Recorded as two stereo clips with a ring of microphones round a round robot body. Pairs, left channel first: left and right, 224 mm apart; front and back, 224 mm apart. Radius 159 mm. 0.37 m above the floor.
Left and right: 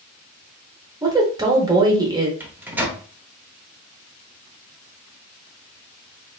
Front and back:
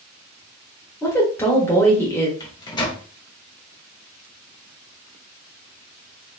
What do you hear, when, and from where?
1.0 s a woman speaking: 60° right, 0.8 m
2.4 s a microwave: 25° right, 0.6 m